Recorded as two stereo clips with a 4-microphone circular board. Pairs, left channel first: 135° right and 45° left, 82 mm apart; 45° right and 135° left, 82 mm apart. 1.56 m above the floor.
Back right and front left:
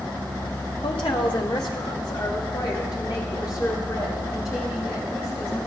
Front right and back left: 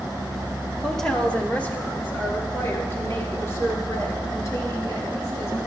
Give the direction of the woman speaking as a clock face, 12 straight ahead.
4 o'clock.